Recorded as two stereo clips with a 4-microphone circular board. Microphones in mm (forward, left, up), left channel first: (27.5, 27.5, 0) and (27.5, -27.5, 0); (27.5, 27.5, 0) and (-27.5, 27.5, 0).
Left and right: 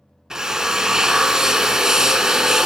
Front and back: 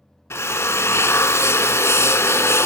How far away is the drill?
About 0.7 m.